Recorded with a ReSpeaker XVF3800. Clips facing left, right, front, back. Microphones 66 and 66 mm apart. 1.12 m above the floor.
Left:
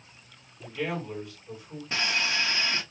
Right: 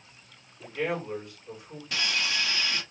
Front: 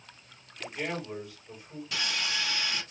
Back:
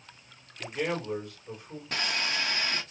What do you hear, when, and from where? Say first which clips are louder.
0.6 s a man speaking: right 2 dB, back 3 dB; 150° right, 2.5 m
1.9 s sawing: left 2 dB, back 2 dB; 145° left, 0.9 m